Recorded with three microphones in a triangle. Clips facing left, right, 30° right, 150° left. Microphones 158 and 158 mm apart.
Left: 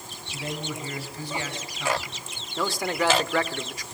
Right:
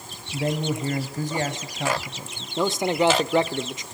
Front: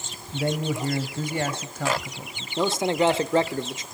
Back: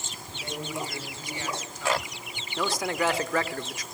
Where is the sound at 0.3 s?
55° right, 2.5 m.